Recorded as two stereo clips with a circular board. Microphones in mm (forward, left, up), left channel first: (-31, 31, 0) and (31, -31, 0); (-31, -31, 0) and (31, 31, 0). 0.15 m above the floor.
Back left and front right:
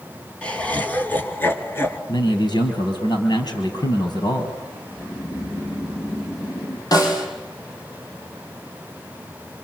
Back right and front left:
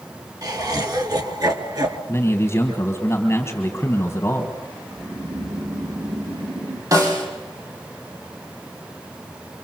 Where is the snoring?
85° left, 5 m.